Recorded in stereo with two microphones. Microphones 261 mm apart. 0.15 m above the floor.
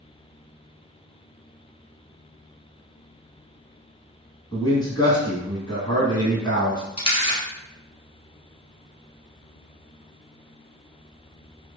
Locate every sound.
4.5 s a man speaking: 15° left (ahead or behind), 1.4 m
7.0 s a camera shutter: 20° left (ahead or behind), 0.9 m